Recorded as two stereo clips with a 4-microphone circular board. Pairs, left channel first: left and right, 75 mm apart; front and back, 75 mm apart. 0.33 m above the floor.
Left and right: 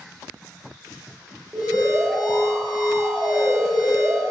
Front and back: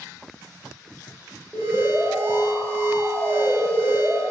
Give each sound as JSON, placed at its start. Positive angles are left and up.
{"t": 1.5, "sound": "an alarm", "azimuth_deg": -95, "distance_m": 1.5}